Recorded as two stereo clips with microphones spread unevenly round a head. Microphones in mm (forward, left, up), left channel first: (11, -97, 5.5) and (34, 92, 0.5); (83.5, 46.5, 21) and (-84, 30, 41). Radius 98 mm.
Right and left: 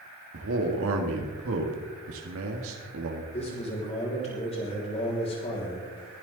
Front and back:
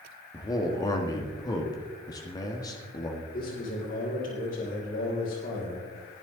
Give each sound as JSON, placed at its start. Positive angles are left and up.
{"t": 0.3, "sound": "a man speaking", "azimuth_deg": 75, "distance_m": 1.8}
{"t": 3.3, "sound": "a man speaking", "azimuth_deg": -40, "distance_m": 6.0}